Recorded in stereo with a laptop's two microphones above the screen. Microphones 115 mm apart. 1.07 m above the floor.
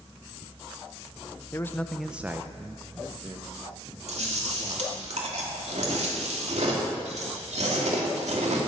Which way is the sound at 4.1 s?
80° right.